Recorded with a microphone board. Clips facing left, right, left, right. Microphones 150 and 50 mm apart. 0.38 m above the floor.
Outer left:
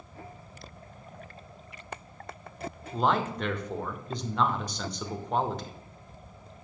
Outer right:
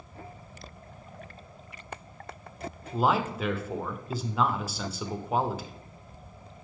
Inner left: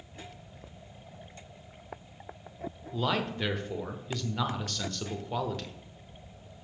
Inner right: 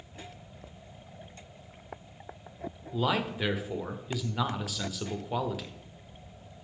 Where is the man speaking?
5° right (ahead or behind), 0.8 m.